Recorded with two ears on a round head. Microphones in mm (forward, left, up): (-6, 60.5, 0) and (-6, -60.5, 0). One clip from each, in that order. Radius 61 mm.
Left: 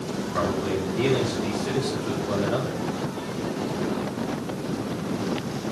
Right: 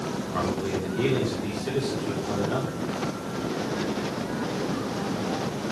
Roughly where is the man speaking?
Centre.